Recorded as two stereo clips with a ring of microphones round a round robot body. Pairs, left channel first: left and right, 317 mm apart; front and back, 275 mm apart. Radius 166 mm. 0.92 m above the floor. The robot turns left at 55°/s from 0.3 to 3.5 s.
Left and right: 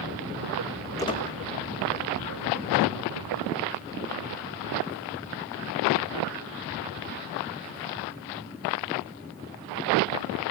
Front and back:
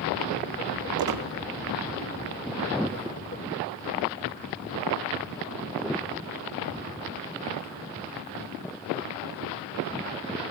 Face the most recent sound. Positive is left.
turn(degrees=35)